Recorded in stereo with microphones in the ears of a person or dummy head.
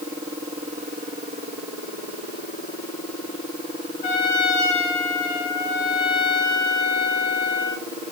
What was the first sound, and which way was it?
A trumpet, 45° left (ahead or behind).